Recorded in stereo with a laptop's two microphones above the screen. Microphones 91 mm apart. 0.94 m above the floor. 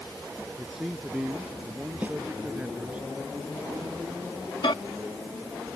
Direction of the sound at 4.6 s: 65° left (ahead or behind).